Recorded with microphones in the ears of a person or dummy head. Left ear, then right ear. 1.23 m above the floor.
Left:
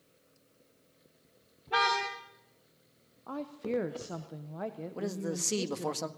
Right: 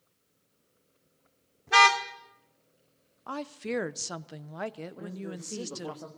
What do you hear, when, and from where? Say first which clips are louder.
1.7 s a car horn: right 8 dB; 70° right (ahead or behind), 2 m
3.3 s a woman speaking: right 1 dB; 50° right (ahead or behind), 0.7 m
5.0 s a man speaking: left 6 dB; 85° left, 1.6 m